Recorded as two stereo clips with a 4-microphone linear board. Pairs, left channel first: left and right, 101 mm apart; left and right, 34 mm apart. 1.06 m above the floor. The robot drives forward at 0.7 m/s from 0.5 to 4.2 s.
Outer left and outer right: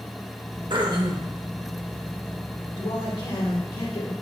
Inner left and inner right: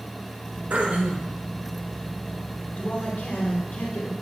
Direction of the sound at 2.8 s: 55° left (ahead or behind).